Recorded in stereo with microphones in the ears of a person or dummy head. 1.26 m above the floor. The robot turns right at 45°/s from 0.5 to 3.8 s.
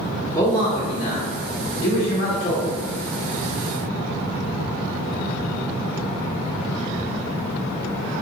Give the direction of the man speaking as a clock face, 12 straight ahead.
11 o'clock.